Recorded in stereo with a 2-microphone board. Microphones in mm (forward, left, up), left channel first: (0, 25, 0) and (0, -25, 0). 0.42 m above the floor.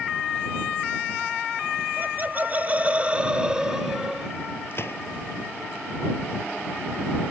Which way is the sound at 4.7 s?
50° left (ahead or behind).